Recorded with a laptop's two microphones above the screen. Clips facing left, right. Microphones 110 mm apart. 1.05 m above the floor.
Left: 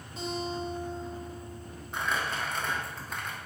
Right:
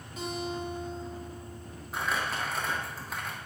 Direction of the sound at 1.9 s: 5° right (ahead or behind).